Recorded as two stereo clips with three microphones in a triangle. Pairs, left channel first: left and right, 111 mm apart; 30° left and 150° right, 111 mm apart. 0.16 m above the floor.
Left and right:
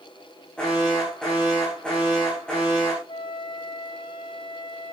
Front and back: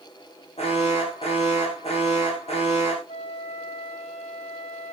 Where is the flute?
50° left, 2 m.